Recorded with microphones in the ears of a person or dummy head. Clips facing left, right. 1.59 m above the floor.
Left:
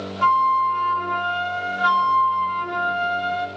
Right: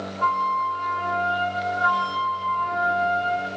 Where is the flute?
50° left (ahead or behind), 0.5 m.